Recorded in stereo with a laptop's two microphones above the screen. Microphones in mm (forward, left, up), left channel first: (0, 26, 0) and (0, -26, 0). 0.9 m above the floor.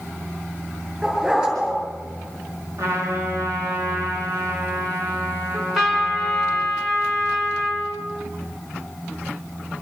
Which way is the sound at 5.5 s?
5° right (ahead or behind).